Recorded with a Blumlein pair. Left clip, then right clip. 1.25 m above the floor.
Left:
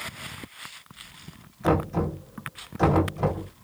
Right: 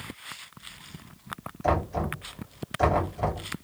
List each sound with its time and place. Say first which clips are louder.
1.6 s knocking: left 2 dB; 5° left, 2.5 m